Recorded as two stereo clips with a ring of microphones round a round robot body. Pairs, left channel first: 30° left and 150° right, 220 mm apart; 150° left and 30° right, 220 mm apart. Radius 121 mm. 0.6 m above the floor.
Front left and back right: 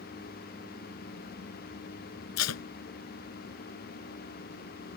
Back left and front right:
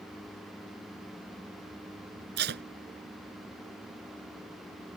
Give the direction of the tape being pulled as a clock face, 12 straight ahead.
12 o'clock.